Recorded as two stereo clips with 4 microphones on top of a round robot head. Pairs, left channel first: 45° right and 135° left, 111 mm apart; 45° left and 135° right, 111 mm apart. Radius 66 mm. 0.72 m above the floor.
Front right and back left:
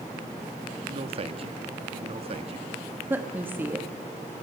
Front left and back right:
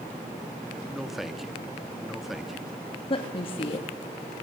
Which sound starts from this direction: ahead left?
A woman speaking, at 3.1 s.